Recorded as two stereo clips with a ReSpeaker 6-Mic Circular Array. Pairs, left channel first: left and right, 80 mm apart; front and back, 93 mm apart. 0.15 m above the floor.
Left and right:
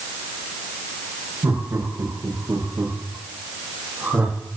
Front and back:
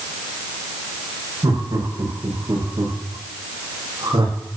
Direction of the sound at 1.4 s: 135° right.